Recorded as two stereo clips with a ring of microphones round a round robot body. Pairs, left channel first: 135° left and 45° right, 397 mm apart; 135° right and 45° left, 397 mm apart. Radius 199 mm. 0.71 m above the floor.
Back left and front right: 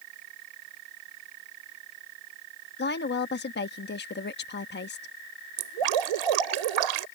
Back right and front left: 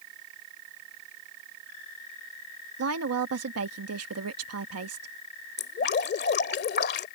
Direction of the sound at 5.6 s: 70° right.